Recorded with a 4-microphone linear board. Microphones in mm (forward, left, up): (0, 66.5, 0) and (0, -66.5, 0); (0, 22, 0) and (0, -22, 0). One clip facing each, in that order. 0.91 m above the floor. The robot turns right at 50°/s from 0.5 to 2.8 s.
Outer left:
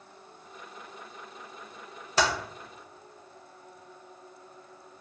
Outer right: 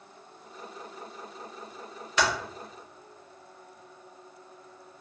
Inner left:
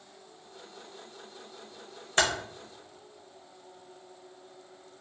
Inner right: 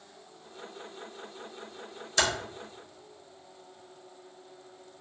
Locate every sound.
2.2 s typing on a keyboard: 35° left (ahead or behind), 0.6 m